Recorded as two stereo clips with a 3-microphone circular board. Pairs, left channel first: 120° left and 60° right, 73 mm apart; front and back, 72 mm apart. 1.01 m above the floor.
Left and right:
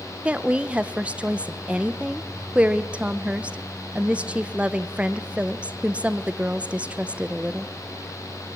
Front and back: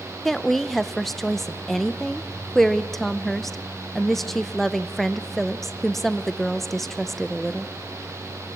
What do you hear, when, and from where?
0.2 s a woman speaking: 80° right, 0.8 m